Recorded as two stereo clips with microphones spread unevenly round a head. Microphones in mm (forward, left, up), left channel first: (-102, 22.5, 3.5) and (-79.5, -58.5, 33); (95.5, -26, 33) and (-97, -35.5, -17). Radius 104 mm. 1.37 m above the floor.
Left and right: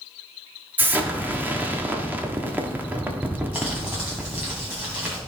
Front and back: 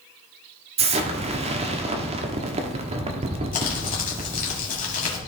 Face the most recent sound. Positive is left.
turn(degrees=-15)